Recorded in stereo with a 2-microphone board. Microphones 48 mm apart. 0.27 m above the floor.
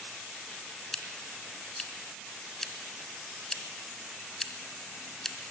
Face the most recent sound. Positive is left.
turn(degrees=5)  # may be behind; listen again after turning